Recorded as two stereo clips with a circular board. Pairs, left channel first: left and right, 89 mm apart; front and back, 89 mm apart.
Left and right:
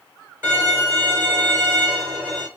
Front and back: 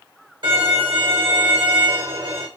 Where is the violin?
160° right, 3 m.